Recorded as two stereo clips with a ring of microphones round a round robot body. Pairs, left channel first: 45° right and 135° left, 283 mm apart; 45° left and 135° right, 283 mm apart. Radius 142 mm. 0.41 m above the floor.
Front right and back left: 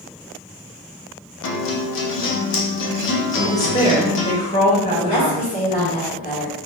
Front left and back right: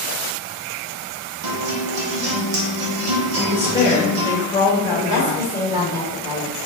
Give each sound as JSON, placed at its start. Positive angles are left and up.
{"t": 1.4, "sound": "a guitar", "azimuth_deg": -95, "distance_m": 0.6}
{"t": 3.4, "sound": "a woman speaking", "azimuth_deg": -15, "distance_m": 0.9}
{"t": 4.9, "sound": "a woman speaking", "azimuth_deg": -75, "distance_m": 1.4}